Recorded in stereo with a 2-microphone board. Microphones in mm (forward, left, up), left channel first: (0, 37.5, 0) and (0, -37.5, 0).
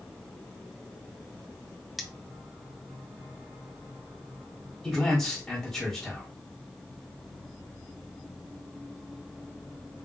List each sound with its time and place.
2.0 s cutlery clinking: centre (ahead or behind), 0.5 m
4.8 s a man speaking: 5° left (ahead or behind), 1.6 m